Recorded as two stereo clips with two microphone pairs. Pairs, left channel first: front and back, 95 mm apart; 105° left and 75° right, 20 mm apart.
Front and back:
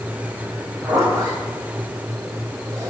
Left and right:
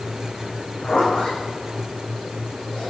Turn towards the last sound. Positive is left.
turn(degrees=125)